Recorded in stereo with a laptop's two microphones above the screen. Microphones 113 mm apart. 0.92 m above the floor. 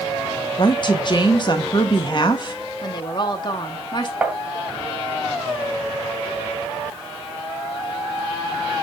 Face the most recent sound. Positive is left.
turn(degrees=-10)  # may be behind; listen again after turning